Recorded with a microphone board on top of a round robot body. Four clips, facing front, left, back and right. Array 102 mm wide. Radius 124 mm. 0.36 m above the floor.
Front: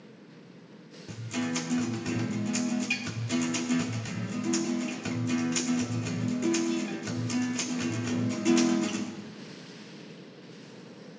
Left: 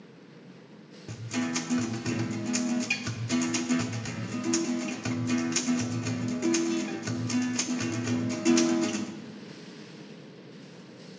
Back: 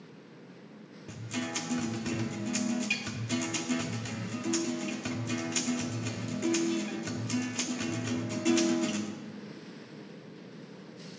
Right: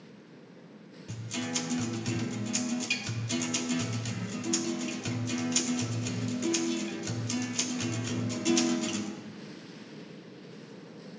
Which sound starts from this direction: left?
A guitar, at 1.1 s.